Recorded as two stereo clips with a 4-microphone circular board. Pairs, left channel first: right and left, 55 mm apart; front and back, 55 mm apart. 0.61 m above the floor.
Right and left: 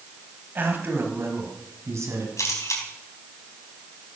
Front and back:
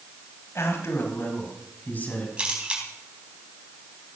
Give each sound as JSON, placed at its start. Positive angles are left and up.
{"t": 0.6, "sound": "a man speaking", "azimuth_deg": 35, "distance_m": 3.5}
{"t": 2.4, "sound": "a camera shutter", "azimuth_deg": -110, "distance_m": 4.0}